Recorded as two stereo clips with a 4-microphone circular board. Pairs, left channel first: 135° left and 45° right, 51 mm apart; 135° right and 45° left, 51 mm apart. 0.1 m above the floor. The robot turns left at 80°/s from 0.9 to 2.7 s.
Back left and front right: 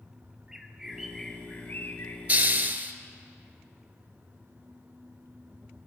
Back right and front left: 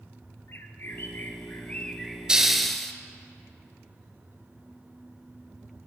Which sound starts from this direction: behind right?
A bird, at 0.5 s.